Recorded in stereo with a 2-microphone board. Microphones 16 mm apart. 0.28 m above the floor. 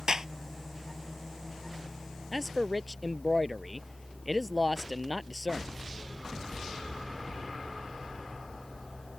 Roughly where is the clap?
Right.